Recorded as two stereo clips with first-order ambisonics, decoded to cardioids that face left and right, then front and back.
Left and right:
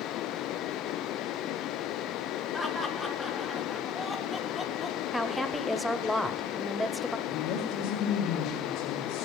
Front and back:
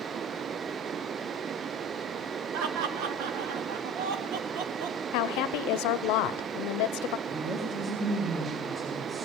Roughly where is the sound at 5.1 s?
Ahead.